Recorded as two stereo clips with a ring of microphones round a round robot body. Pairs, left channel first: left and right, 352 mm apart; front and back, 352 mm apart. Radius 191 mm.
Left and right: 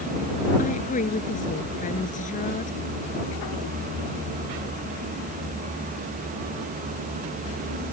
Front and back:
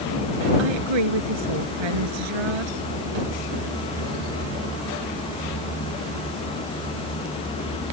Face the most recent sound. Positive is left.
turn(degrees=160)